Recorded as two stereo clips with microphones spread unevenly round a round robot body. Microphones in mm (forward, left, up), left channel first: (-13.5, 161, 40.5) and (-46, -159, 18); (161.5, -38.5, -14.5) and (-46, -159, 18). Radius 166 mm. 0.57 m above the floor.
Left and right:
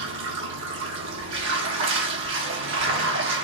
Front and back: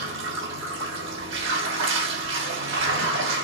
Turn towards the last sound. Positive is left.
turn(degrees=-130)